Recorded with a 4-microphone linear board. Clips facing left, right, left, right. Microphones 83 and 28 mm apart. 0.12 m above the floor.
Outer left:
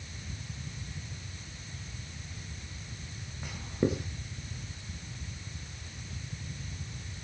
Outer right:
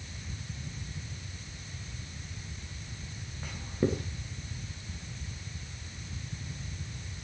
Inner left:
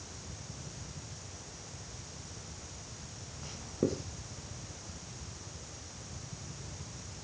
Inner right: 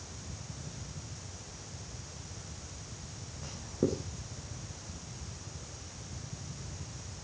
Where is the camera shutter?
No camera shutter in this recording.